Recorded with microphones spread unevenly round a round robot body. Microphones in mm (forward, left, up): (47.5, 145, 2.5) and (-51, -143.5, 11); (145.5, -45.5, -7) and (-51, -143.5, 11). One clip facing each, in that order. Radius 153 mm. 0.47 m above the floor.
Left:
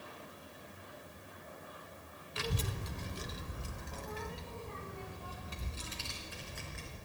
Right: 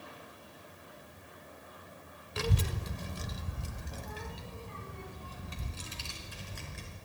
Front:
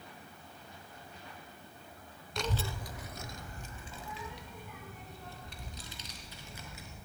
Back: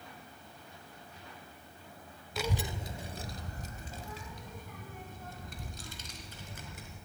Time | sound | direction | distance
2.4 | a child speaking | 65° right | 0.9 m